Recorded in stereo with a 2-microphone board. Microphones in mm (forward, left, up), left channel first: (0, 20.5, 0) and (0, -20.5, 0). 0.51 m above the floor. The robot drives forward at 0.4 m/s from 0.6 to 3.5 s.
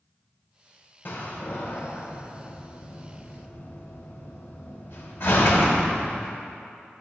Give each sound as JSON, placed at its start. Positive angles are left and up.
{"t": 1.1, "sound": "a door slam", "side_deg": 55, "distance_m": 1.1}